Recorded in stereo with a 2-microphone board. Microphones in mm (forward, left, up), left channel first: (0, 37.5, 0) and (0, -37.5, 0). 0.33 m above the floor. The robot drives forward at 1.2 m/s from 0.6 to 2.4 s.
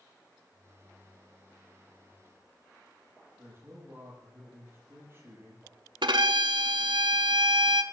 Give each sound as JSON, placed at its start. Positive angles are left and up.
{"t": 3.4, "sound": "a man speaking", "side_deg": -30, "distance_m": 8.0}
{"t": 6.0, "sound": "a violin", "side_deg": -85, "distance_m": 0.9}